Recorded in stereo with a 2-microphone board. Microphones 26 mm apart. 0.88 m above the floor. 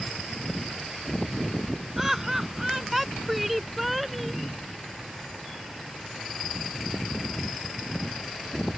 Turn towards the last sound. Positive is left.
turn(degrees=0)  # may be behind; listen again after turning